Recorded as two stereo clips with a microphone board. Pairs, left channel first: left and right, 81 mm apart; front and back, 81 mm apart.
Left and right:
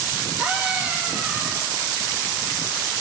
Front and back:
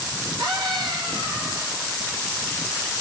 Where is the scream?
160° right, 3 m.